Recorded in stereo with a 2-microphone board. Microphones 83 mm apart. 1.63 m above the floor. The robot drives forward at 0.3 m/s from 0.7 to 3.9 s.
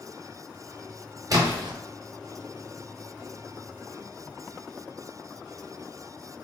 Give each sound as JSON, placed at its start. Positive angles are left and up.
{"t": 1.3, "sound": "a splash", "side_deg": -45, "distance_m": 0.8}